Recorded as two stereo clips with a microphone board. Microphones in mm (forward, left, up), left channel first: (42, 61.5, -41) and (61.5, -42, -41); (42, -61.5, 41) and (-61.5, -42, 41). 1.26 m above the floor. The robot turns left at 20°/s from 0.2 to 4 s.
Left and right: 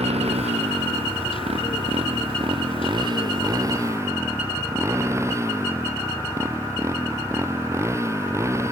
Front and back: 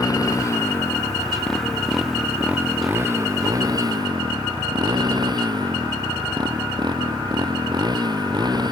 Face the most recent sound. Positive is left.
turn(degrees=-145)